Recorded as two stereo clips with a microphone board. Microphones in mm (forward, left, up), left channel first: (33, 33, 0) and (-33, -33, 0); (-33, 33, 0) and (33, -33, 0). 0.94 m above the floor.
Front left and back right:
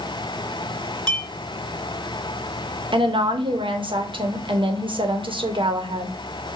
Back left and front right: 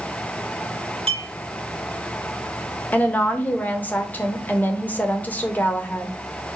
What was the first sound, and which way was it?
A clink, 35° right.